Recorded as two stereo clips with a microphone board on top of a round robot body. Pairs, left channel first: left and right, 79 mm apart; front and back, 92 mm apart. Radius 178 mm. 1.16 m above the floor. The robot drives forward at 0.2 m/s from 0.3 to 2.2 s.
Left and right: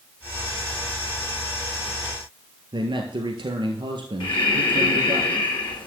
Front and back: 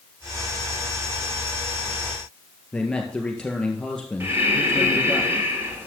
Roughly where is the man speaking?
Right.